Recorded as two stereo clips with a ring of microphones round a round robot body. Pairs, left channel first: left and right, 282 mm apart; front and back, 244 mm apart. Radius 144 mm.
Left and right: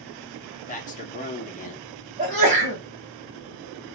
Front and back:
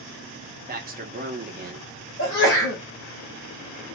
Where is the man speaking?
140° left, 0.8 m.